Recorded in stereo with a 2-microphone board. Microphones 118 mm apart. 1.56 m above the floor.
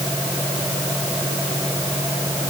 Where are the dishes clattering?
No dishes clattering in this recording.